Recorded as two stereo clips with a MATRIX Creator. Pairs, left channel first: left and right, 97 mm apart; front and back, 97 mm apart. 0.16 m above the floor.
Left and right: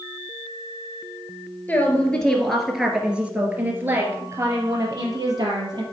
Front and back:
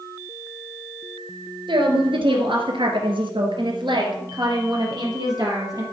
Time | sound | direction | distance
1.7 | a woman speaking | 160° left | 2.5 m